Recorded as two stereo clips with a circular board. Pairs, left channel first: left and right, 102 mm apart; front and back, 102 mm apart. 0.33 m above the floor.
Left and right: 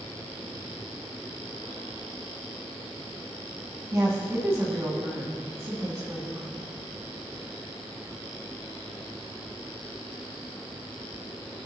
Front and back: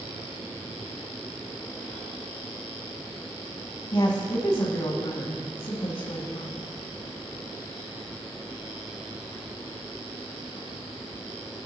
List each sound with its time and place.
3.9 s a woman speaking: 30° right, 2.5 m